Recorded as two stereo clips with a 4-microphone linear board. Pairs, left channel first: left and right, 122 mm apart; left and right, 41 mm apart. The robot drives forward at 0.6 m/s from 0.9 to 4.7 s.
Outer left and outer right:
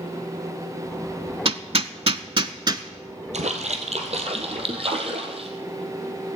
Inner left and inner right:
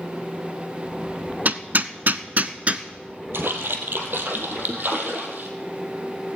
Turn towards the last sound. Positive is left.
turn(degrees=-55)  # may be behind; listen again after turning